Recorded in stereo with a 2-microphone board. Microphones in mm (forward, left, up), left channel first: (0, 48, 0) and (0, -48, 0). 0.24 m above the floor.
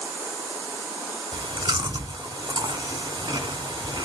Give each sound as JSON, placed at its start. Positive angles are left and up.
{"t": 1.3, "sound": "chewing", "side_deg": -55, "distance_m": 1.1}